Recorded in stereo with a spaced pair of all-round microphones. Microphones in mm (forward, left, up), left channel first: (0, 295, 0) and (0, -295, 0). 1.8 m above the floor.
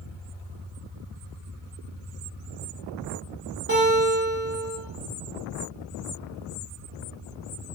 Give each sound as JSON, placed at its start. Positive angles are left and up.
{"t": 3.7, "sound": "a guitar", "side_deg": -20, "distance_m": 1.3}